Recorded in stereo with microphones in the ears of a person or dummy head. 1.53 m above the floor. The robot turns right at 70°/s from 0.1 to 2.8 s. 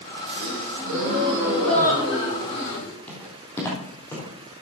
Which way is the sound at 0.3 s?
95° right.